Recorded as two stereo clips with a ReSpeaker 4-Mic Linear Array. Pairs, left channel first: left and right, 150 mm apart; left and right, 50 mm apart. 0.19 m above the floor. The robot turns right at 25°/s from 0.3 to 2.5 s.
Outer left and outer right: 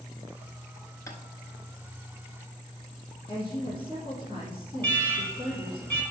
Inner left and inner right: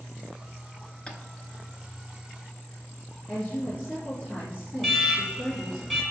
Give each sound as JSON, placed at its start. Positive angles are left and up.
{"t": 1.1, "sound": "tapping", "side_deg": 20, "distance_m": 0.9}
{"t": 3.3, "sound": "a woman speaking", "side_deg": 45, "distance_m": 2.5}
{"t": 4.8, "sound": "an alarm", "side_deg": 10, "distance_m": 2.0}